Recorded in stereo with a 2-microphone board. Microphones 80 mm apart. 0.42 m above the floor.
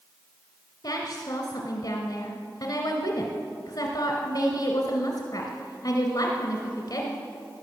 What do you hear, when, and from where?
0.8 s a woman speaking: 60° left (ahead or behind), 1.8 m